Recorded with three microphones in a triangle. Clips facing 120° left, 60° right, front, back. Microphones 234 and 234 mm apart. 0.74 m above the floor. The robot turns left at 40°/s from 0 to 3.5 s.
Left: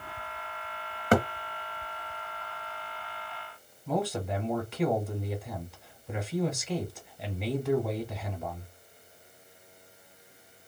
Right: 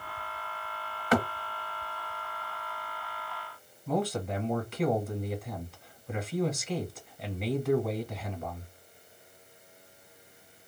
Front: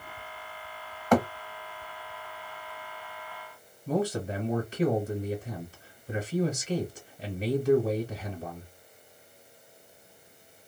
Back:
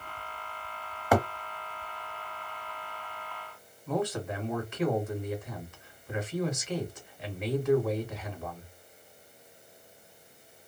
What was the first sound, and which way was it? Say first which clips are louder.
A thud: left 2 dB, front 3 dB; 105° left.